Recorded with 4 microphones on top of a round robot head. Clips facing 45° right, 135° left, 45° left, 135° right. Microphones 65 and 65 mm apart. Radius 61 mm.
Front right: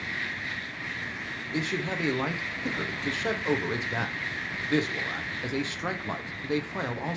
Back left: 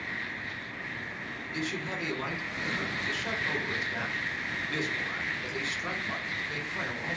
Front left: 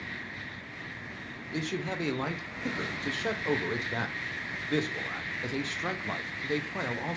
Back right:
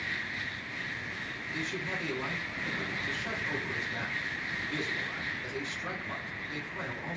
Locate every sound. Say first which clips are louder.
1.5 s a man speaking: front right 4 dB, front left 3 dB; 5° left, 0.6 m